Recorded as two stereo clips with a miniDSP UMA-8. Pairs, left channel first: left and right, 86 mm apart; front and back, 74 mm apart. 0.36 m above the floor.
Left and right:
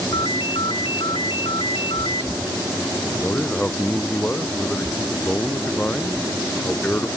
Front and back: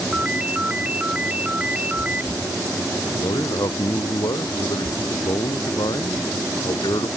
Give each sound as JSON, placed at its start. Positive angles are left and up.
{"t": 0.1, "sound": "a ringtone", "azimuth_deg": 110}
{"t": 3.1, "sound": "a man speaking", "azimuth_deg": 15}